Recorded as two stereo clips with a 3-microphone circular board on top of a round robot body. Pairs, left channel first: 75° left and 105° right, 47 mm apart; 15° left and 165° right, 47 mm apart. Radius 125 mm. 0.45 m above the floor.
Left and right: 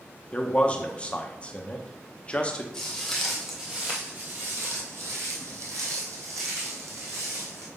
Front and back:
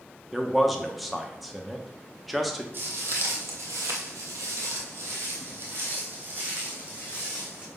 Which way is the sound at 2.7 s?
150° left.